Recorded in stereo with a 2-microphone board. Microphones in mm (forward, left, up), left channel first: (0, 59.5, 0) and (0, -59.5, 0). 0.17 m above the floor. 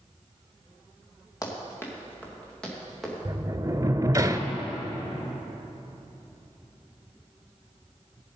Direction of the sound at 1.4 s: 30° left (ahead or behind).